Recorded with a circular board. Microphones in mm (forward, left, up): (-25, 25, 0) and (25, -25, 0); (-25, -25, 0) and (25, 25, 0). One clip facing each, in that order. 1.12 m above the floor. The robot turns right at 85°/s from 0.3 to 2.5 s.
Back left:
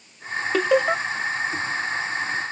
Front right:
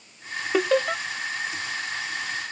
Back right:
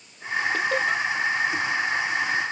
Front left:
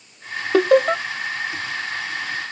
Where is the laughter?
40° left; by 1.0 s 80° left.